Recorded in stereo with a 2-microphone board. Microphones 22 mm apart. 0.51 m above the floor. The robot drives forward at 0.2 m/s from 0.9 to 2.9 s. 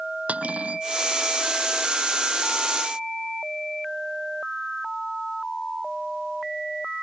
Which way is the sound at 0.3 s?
80° right.